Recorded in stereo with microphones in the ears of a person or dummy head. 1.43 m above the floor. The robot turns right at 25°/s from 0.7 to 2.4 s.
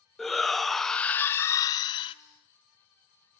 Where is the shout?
Straight ahead, 0.6 m; by 2.1 s 40° left, 0.6 m.